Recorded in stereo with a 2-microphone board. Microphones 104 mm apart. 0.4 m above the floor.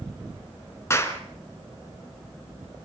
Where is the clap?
25° left (ahead or behind), 3.5 m.